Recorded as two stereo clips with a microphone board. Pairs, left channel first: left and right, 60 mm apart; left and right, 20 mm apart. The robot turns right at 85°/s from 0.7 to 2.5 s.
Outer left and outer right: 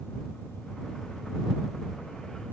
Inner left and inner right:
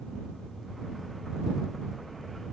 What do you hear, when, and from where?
Only background noise.